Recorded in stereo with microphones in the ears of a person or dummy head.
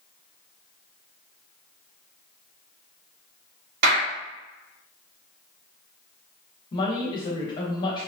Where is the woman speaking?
25° left (ahead or behind), 0.9 m.